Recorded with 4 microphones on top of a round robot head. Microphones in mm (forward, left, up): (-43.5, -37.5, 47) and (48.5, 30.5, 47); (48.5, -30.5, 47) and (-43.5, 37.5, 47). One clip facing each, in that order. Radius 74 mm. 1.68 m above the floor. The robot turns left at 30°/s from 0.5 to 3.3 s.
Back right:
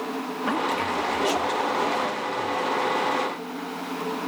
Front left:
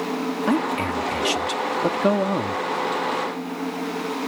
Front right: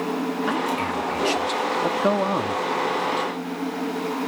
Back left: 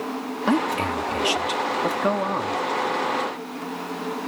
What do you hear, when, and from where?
0.5 s a man speaking: 90° left; by 2.6 s 25° left